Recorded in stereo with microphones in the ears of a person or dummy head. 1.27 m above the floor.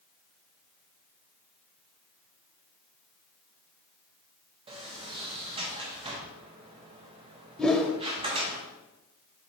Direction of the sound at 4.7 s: 20° right (ahead or behind).